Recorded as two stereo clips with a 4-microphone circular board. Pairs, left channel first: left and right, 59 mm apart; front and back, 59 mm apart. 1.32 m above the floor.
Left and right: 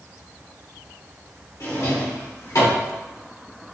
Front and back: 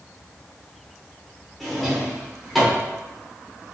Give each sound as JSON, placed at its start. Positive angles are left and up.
{"t": 1.6, "sound": "a drawer", "azimuth_deg": 90, "distance_m": 2.0}